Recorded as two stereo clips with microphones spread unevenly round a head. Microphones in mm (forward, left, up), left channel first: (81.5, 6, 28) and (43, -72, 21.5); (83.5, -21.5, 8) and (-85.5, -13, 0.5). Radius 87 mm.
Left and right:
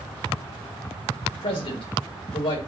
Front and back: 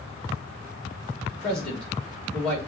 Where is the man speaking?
85° left, 3 m.